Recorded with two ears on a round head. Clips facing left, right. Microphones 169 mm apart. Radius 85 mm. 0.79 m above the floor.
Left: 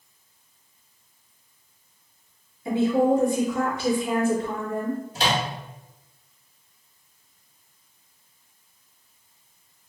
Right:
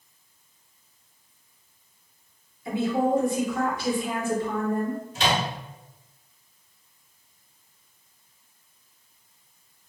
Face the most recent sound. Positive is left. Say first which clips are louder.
# right 1 dB
turn(degrees=30)  # may be behind; listen again after turning